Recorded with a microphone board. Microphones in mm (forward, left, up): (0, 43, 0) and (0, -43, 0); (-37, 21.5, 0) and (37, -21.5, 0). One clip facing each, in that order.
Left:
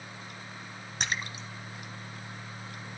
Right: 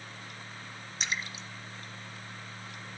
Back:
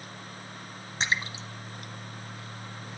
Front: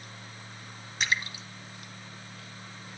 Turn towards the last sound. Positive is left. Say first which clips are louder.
# left 2 dB, back 1 dB
turn(degrees=95)